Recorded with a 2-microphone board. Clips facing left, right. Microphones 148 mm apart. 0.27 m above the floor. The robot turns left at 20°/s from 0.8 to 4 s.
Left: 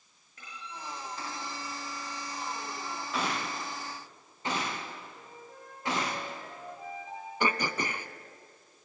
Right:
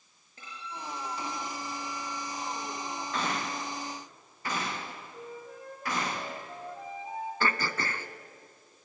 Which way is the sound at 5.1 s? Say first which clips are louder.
Right 6 dB; 70° right (ahead or behind).